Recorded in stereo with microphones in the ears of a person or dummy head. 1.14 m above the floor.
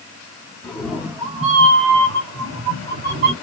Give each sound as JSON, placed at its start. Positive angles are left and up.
{"t": 0.6, "sound": "a cat meowing", "side_deg": 5, "distance_m": 1.5}